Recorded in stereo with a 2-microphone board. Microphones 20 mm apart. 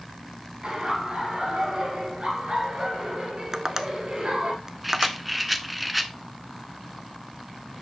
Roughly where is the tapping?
Right.